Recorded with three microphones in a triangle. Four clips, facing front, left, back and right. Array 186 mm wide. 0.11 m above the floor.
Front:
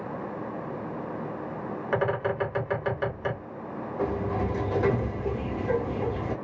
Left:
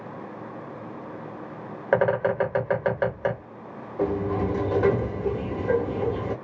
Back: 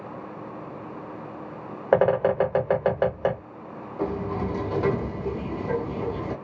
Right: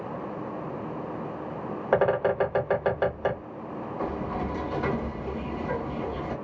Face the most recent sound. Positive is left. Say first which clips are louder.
# left 7 dB, back 1 dB
turn(degrees=100)